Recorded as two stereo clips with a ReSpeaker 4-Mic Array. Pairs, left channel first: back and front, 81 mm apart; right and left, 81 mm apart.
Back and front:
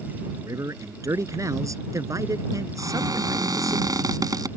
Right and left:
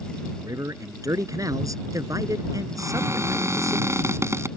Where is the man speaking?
45° left.